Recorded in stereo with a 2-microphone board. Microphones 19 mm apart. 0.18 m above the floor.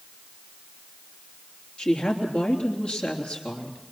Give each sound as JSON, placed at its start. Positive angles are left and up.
{"t": 1.8, "sound": "a woman speaking", "side_deg": 60, "distance_m": 3.5}